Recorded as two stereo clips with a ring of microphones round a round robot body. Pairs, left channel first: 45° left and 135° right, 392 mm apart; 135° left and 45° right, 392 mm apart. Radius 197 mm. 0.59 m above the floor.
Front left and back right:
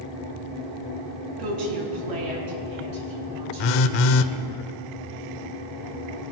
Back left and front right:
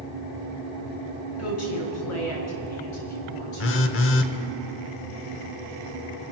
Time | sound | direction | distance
1.4 | a woman speaking | 170° right | 5.5 m
3.6 | a phone buzzing | 75° left | 0.8 m